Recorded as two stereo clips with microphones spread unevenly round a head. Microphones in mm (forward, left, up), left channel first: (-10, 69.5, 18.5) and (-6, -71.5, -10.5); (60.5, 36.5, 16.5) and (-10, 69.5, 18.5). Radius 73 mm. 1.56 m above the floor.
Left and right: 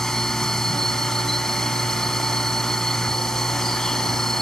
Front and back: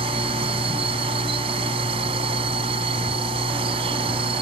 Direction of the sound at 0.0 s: 175° left.